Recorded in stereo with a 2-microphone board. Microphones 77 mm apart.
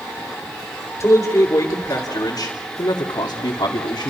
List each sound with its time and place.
1.0 s a man speaking: 35° left (ahead or behind), 4.5 m; by 4.1 s 65° left (ahead or behind), 3 m